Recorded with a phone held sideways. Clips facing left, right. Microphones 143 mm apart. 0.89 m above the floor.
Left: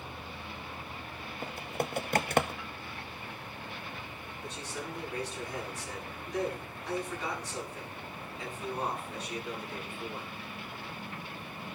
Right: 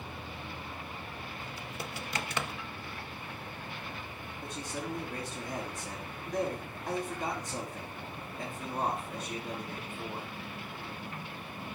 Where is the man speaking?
50° right (ahead or behind), 9.5 m.